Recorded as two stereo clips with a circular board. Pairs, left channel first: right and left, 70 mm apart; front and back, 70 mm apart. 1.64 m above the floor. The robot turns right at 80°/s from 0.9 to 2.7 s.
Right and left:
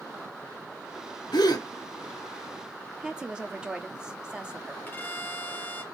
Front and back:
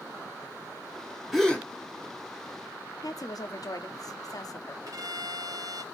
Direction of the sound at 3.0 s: 10° left.